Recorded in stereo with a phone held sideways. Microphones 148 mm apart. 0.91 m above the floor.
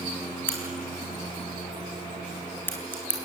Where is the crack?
15° left (ahead or behind), 4 m.